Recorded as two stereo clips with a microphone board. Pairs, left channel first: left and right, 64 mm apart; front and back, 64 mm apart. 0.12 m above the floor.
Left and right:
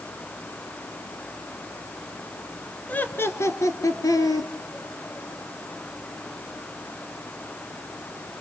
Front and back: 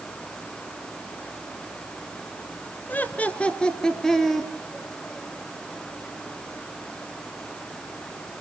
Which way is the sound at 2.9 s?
40° left.